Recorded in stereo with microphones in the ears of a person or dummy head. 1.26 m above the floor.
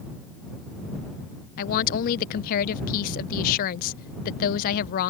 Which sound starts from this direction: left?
A woman speaking, at 1.6 s.